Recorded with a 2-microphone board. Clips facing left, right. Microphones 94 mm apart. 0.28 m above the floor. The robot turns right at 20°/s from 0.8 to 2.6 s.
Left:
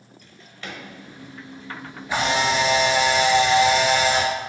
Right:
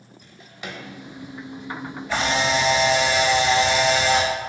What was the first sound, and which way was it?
A drawer, 15° right (ahead or behind).